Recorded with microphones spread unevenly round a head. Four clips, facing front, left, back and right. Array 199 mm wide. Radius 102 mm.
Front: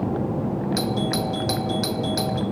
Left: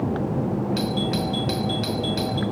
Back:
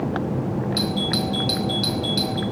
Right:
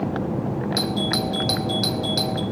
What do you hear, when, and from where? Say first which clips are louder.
0.8 s a doorbell: even, even; 50° right, 1.5 m